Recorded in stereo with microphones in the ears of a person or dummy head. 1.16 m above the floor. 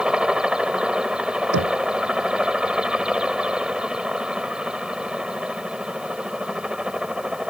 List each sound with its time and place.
0.0 s a helicopter: 5° right (ahead or behind)
1.5 s knocking: 65° right (ahead or behind)